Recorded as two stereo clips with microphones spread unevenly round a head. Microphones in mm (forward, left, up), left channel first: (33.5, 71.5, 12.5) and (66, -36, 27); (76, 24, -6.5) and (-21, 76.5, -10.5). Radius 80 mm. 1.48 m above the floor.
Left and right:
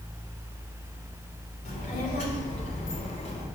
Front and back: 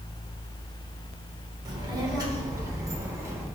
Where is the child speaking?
105° left, 4 m; by 3.5 s 85° left, 3.5 m.